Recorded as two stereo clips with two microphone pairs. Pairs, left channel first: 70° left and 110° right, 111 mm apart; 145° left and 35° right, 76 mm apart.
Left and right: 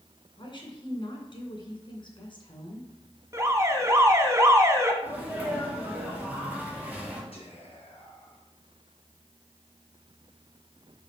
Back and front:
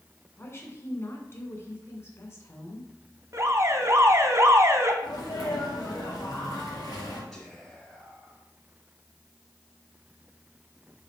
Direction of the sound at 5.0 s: 175° left.